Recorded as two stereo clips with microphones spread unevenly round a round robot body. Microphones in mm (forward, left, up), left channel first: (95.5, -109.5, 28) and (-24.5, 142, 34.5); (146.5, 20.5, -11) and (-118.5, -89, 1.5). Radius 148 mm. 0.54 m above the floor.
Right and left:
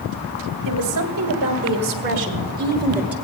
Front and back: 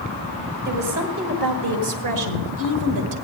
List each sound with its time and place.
0.7 s a woman speaking: 150° left, 2 m; by 3.1 s 160° right, 1.8 m